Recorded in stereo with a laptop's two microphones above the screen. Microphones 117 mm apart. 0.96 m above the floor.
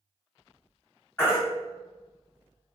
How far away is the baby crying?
About 1.8 m.